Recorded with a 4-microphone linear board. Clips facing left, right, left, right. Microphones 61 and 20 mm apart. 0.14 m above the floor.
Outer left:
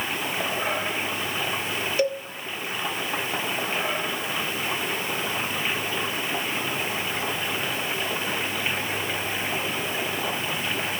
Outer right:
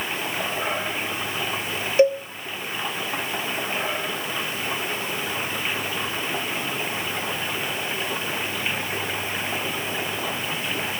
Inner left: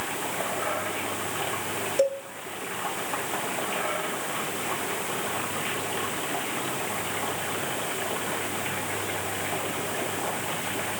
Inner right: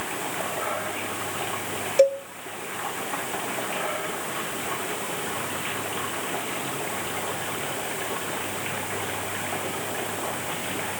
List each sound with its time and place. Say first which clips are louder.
2.0 s a cowbell: outer right 8 dB, inner right 6 dB; 25° right (ahead or behind), 0.7 m